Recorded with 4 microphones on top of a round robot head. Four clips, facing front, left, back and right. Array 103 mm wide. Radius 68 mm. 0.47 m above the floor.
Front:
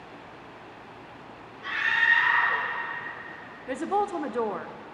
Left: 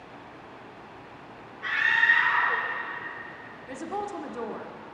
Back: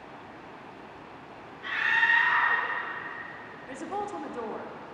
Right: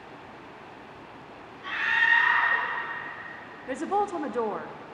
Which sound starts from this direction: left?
A scream, at 1.6 s.